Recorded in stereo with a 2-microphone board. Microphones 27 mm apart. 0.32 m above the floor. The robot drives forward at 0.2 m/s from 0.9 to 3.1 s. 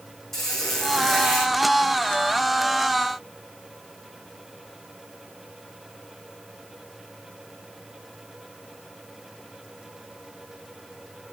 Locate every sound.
0.3 s a squeak: 10° left (ahead or behind), 5 m